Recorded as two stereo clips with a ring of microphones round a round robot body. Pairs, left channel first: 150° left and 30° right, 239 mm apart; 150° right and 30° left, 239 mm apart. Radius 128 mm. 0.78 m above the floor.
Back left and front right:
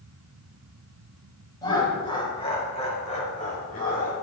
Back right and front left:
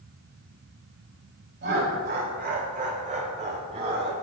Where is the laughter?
75° left, 5 m; by 4.1 s 95° left, 5 m.